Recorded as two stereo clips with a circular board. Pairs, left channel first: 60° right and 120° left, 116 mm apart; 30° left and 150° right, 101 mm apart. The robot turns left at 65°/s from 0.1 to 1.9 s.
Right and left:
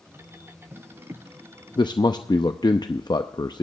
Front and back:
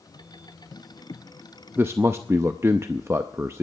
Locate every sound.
1.8 s a man speaking: 85° right, 0.6 m; by 3.6 s 95° right, 0.6 m